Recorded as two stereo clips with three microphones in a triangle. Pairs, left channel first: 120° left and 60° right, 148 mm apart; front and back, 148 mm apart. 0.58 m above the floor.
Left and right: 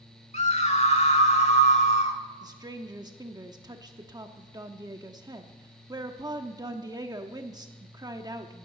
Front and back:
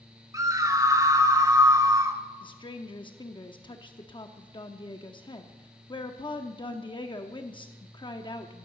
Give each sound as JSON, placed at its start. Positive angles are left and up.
{"t": 0.3, "sound": "a scream", "azimuth_deg": 125, "distance_m": 1.6}
{"t": 2.4, "sound": "a woman speaking", "azimuth_deg": -20, "distance_m": 0.9}